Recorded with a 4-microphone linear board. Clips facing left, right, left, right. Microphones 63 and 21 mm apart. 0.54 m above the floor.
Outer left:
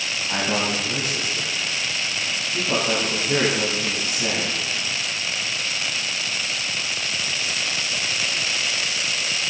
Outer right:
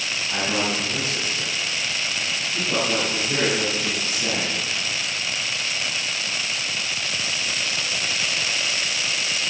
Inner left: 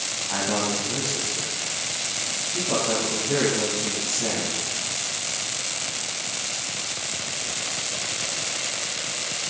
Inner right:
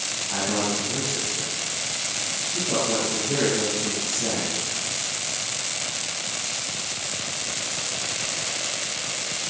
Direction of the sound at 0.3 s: 35° left (ahead or behind).